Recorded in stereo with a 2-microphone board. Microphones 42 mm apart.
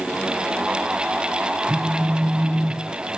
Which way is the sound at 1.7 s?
40° right (ahead or behind).